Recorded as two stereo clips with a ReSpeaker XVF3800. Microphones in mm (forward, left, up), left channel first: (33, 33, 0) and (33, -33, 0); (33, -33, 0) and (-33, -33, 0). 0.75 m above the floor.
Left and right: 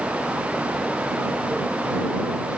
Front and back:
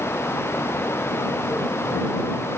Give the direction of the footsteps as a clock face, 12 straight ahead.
I don't hear footsteps.